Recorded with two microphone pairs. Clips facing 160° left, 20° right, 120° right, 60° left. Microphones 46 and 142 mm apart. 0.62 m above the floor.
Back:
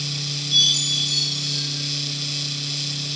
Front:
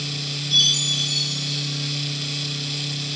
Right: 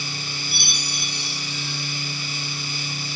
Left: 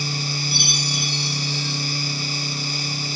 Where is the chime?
10° right, 3.5 m.